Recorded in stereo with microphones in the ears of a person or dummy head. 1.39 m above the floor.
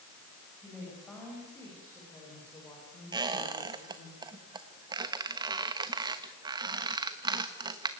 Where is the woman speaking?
Centre (ahead or behind), 8 m; by 4.1 s 25° left (ahead or behind), 4.5 m.